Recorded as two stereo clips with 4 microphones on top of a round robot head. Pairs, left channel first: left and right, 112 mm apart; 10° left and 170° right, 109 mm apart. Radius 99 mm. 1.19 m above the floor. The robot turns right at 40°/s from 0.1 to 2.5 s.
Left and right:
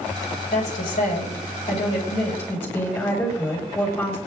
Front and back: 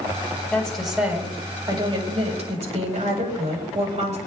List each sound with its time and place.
0.5 s a woman speaking: 90° left, 8.5 m; by 4.2 s 170° left, 8.5 m